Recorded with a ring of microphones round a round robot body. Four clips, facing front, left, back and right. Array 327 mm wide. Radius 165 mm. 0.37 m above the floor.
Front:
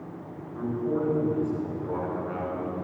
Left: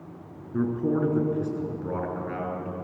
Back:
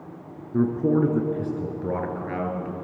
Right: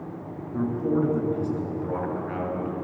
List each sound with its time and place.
0.5 s a man speaking: 165° left, 4.5 m; by 2.7 s straight behind, 6.5 m